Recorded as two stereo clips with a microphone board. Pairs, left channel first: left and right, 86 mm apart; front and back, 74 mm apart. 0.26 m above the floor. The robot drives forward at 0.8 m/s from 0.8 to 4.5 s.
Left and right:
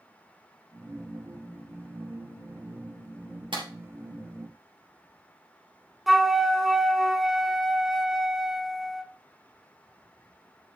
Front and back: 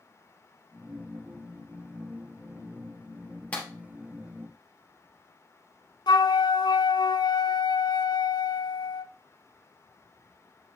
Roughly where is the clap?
Right.